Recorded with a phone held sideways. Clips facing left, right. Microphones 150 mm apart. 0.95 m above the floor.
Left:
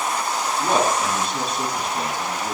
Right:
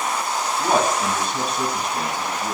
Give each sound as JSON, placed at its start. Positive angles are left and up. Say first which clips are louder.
{"t": 0.6, "sound": "a man speaking", "louder": "even", "side_deg": -55, "distance_m": 6.0}